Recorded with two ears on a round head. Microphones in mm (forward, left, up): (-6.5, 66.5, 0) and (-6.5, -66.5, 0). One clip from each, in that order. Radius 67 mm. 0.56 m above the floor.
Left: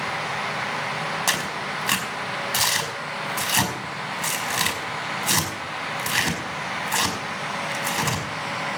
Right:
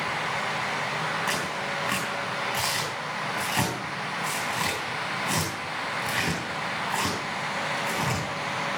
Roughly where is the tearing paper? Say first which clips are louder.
Left 3 dB; left.